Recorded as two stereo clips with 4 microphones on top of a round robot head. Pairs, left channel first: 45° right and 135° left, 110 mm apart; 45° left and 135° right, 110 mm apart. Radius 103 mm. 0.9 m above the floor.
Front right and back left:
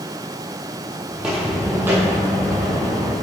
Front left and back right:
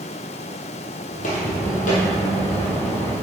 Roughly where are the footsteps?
Ahead left.